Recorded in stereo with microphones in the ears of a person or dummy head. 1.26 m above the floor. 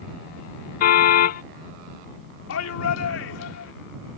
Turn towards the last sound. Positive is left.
turn(degrees=80)